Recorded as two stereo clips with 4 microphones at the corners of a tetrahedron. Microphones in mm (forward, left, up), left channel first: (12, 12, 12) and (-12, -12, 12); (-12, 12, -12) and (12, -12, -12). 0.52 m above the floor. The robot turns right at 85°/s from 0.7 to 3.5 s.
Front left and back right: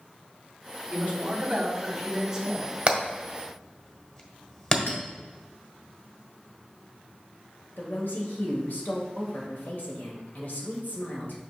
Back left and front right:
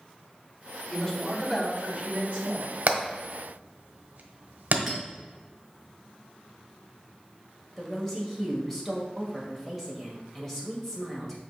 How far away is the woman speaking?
About 1.8 m.